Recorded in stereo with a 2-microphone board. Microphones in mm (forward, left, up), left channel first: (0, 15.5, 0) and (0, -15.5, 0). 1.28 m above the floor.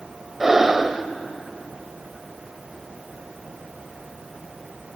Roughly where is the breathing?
Centre.